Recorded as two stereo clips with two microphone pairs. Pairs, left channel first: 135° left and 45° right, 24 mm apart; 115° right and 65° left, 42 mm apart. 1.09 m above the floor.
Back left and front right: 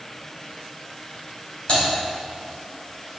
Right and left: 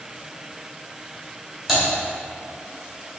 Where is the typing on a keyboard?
145° left, 1.9 m.